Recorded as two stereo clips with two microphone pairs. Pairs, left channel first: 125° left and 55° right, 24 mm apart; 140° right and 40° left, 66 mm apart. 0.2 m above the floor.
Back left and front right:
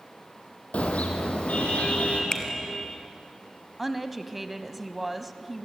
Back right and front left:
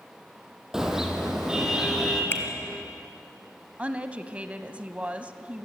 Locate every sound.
0.7 s a car horn: 125° left, 4 m
2.3 s a finger snap: straight behind, 1.9 m
3.8 s a woman speaking: 20° left, 1.0 m